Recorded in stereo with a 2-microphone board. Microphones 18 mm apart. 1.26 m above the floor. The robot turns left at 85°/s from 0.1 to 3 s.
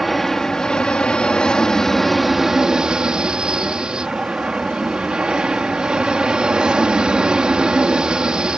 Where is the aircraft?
Straight behind; by 8.6 s 70° right.